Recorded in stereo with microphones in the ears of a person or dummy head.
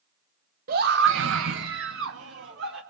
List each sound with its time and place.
0.7 s a scream: 55° right (ahead or behind), 1.3 m; by 2.8 s 65° right (ahead or behind), 3.5 m